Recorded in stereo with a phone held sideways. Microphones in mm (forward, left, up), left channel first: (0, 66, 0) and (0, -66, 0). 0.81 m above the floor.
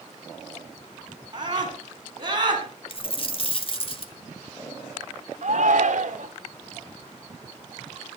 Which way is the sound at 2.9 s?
40° left (ahead or behind).